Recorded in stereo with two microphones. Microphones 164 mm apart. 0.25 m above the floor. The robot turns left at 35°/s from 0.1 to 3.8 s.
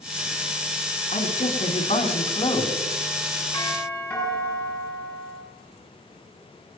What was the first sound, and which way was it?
A man speaking, 95° left.